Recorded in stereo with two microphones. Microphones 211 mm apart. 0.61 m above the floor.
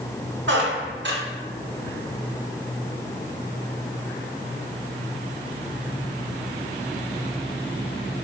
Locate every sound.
0.5 s a squeak: 60° right (ahead or behind), 0.7 m